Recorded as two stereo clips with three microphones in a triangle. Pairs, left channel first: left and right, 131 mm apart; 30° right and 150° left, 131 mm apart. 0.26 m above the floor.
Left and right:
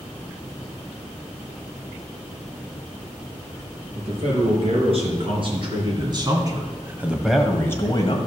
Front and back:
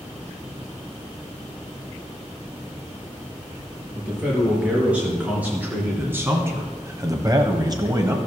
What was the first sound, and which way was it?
A man speaking, 130° right.